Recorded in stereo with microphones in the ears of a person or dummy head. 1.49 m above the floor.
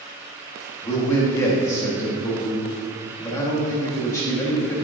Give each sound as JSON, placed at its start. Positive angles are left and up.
{"t": 0.8, "sound": "a man speaking", "side_deg": 15, "distance_m": 1.6}